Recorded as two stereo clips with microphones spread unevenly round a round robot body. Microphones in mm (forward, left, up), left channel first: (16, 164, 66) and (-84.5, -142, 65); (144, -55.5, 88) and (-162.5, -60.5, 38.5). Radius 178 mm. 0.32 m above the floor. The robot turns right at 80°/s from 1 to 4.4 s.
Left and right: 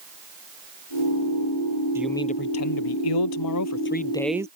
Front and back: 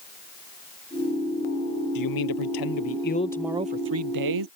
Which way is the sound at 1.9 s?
25° right.